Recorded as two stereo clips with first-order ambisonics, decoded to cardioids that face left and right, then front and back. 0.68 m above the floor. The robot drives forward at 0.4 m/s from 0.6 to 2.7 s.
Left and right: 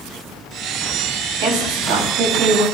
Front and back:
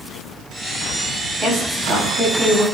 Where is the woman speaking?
90° right, 6 m.